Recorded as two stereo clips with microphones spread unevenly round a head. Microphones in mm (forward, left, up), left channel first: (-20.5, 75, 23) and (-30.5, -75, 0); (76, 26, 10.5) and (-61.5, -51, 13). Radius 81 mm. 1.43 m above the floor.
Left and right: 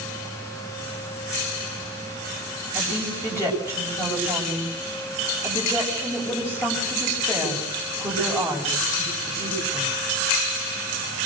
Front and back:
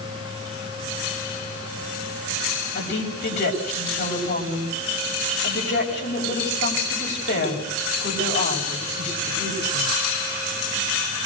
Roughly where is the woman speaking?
Ahead.